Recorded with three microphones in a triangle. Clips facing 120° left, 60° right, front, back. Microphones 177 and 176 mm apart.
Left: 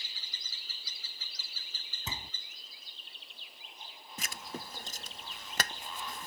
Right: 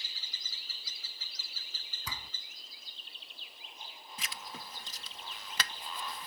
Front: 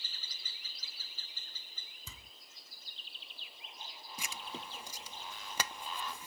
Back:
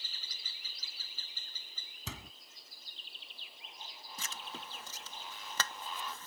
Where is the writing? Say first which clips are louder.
Left 4 dB, front 2 dB; 75° left.